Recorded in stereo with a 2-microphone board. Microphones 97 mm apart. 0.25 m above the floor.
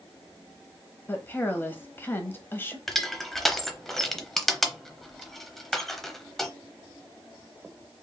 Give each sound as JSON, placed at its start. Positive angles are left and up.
{"t": 1.1, "sound": "a woman speaking", "side_deg": 25, "distance_m": 1.0}
{"t": 2.9, "sound": "crushing", "side_deg": 5, "distance_m": 0.8}